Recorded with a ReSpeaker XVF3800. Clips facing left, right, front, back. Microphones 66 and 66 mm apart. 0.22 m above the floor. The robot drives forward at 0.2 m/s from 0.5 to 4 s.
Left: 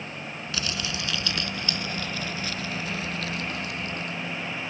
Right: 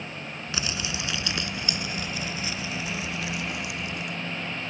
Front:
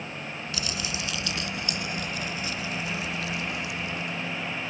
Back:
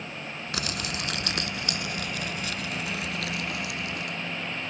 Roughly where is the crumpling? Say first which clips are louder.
Even, back 2 dB; behind right.